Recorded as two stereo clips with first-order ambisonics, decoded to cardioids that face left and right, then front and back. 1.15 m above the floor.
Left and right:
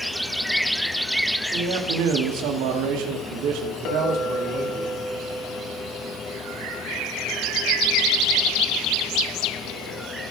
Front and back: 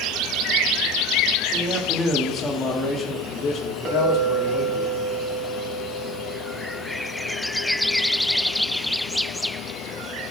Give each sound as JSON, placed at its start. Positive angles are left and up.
{"t": 1.5, "sound": "a man speaking", "azimuth_deg": -110, "distance_m": 1.9}
{"t": 3.9, "sound": "a clink", "azimuth_deg": 120, "distance_m": 3.5}